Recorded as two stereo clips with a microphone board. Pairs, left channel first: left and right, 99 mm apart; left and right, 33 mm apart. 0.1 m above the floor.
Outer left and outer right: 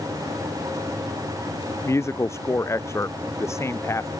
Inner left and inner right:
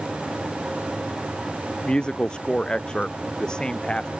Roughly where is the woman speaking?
Left.